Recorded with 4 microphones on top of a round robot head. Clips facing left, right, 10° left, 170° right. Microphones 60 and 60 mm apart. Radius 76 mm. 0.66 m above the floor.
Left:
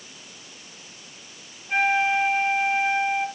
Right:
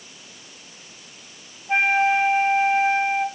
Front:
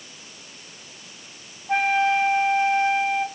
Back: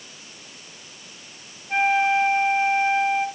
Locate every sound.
1.7 s a flute: 25° right, 3.5 m